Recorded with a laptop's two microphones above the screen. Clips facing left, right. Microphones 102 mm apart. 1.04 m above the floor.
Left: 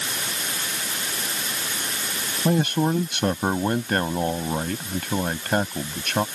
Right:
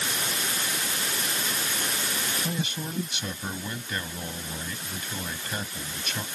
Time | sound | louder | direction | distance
2.5 | a man speaking | left 11 dB | 60° left (ahead or behind) | ?